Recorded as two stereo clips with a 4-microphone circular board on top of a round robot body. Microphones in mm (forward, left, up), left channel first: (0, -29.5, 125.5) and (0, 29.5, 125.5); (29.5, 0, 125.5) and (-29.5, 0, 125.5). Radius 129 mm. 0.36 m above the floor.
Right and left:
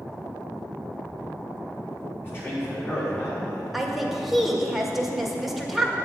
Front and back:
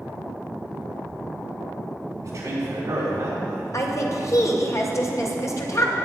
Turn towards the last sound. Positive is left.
turn(degrees=5)